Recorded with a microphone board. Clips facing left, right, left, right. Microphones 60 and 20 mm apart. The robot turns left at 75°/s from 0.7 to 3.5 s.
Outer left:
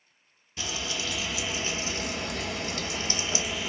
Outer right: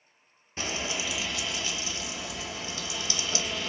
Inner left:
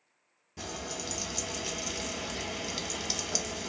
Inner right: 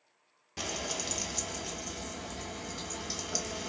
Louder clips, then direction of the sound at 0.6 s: Outer right 1 dB, inner right 3 dB; 140° right.